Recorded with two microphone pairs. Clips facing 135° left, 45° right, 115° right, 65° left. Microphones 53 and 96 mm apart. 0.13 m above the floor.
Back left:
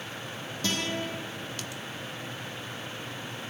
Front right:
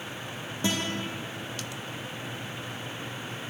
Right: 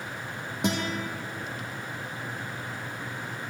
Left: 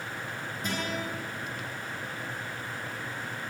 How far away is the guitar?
About 4.5 m.